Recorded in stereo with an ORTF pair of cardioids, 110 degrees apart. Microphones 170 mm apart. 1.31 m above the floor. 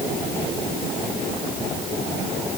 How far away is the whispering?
I don't hear whispering.